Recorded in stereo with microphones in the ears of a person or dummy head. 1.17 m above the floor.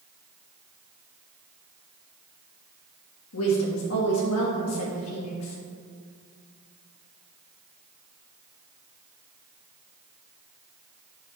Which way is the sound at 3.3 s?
85° left.